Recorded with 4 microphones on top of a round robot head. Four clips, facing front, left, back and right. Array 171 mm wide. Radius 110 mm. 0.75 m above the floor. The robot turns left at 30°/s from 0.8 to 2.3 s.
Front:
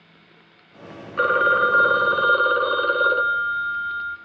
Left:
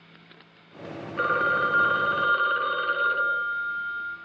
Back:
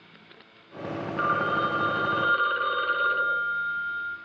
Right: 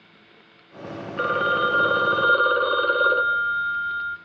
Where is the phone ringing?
10° right, 1.5 m; by 4.2 s 45° right, 1.5 m.